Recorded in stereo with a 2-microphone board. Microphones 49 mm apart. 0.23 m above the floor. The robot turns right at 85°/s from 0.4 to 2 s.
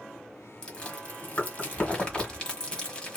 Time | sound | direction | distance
0.6 | chewing | 15° left (ahead or behind) | 1.2 m